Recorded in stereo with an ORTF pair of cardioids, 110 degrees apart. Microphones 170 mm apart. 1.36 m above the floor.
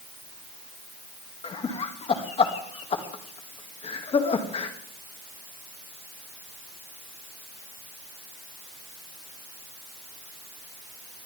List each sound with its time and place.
1.4 s laughter: 35° left, 2.5 m